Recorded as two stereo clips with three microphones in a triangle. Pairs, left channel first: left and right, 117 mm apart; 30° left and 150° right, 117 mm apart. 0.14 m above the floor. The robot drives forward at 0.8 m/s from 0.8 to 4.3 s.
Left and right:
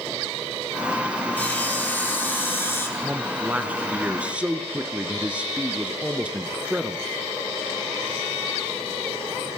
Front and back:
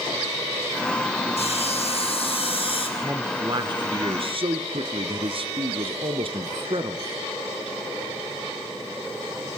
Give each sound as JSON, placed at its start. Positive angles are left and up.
{"t": 1.4, "sound": "sawing", "azimuth_deg": 15, "distance_m": 3.5}
{"t": 3.0, "sound": "a man speaking", "azimuth_deg": -135, "distance_m": 1.1}